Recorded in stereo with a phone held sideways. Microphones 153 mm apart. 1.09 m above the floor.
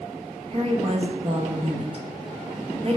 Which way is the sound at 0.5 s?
40° right (ahead or behind).